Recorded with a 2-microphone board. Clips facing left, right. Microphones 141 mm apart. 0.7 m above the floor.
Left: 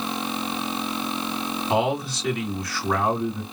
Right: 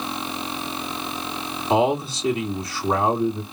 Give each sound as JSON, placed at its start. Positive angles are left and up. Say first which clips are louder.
{"t": 1.7, "sound": "a man speaking", "louder": "right 4 dB", "side_deg": -25, "distance_m": 2.5}